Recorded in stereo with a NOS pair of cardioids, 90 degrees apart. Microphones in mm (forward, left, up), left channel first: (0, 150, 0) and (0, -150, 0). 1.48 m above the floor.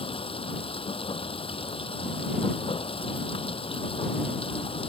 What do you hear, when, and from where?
0.0 s running water: 20° left